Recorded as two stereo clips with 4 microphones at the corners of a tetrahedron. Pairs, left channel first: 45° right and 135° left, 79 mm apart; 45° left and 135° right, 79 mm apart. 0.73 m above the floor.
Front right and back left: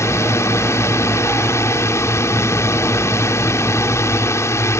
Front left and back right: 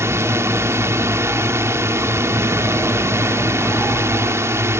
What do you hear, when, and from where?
0.0 s a drone: 90° right